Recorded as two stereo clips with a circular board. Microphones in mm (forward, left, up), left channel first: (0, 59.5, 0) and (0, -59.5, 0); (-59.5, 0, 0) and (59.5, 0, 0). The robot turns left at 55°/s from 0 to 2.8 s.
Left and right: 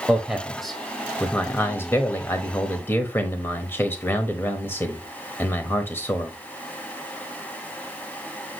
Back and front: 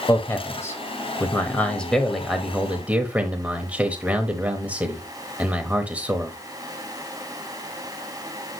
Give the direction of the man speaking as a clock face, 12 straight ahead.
5 o'clock.